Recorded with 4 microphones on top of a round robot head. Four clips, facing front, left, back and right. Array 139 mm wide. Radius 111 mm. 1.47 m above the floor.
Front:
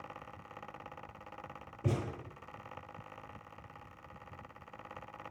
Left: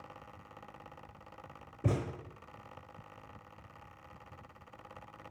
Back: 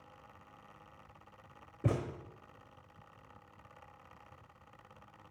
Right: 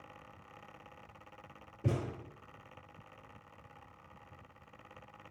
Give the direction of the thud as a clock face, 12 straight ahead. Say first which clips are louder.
Left 2 dB, back 1 dB; 7 o'clock.